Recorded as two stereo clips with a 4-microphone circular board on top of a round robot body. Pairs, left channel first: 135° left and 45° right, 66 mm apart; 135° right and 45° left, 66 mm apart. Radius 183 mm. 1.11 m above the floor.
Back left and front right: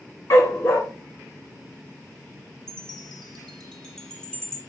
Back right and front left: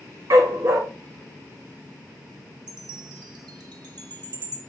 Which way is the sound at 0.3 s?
90° left.